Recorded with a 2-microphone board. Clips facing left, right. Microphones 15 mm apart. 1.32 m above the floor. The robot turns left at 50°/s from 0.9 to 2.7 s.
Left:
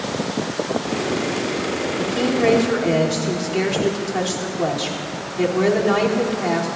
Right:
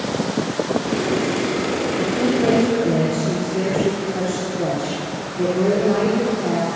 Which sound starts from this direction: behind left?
A woman speaking, at 2.0 s.